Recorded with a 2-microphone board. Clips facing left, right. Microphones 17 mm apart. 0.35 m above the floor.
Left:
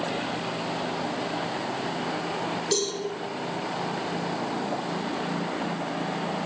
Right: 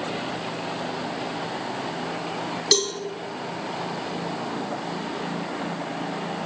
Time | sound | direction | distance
2.7 | a cowbell | 35° right (ahead or behind) | 4.5 m